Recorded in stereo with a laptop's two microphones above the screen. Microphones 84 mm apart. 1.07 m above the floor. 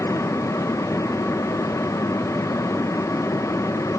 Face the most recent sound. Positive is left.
turn(degrees=40)  # may be behind; listen again after turning